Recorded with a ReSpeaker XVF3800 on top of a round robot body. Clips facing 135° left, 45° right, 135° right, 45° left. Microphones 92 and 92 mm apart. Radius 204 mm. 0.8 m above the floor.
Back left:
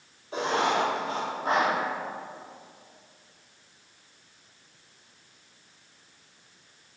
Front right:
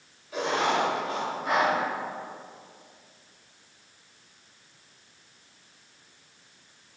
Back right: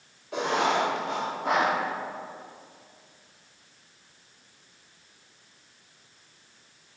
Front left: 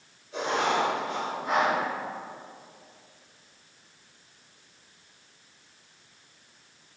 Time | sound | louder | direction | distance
0.3 | writing | even, back right 1 dB | 165° right | 0.9 m